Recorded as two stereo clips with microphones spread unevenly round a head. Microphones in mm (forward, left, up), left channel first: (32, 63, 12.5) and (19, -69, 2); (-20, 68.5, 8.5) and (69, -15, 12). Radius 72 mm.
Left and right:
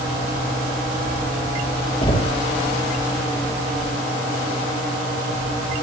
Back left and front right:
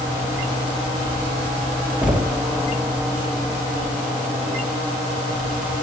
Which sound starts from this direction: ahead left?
Knocking, at 2.0 s.